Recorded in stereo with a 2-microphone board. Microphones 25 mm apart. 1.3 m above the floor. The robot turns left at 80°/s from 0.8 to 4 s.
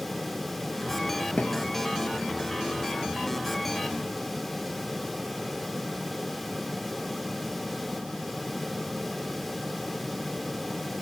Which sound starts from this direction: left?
A thud, at 1.4 s.